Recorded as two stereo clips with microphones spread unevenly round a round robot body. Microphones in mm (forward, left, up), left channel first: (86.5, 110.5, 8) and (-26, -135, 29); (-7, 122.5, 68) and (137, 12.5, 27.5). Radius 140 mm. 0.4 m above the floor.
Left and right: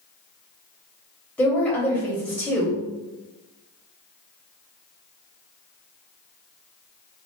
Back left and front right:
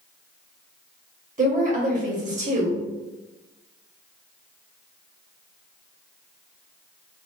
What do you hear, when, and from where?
1.4 s a woman speaking: 15° right, 1.9 m